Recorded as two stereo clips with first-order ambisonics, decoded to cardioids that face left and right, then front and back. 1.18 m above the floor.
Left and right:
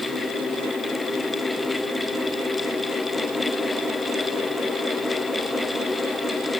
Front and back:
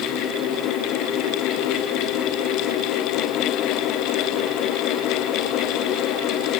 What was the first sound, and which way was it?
Only background noise.